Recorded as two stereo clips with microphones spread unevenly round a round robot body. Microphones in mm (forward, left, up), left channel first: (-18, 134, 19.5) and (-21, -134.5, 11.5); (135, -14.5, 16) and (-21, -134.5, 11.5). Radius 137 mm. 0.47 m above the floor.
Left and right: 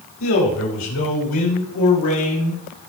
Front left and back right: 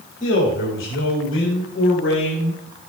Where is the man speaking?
70° left, 3 m; by 2.6 s 60° left, 4 m.